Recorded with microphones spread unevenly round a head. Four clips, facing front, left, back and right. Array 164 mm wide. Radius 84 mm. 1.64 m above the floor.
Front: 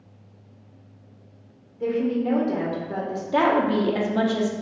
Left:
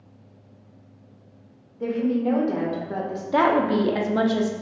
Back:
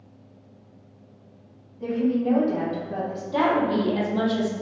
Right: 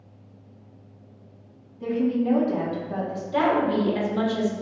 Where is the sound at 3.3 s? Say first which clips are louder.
Left 2 dB, front 2 dB; 75° left, 1.0 m.